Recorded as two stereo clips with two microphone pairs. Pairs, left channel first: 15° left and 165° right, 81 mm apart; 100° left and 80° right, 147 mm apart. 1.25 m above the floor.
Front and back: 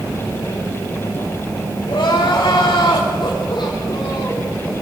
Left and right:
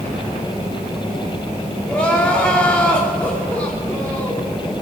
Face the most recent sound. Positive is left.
turn(degrees=20)